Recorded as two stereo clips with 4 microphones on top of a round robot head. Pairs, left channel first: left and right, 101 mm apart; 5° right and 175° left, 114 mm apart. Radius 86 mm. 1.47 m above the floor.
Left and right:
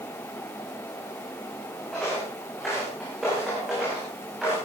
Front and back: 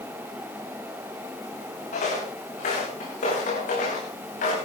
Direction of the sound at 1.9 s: 5° left.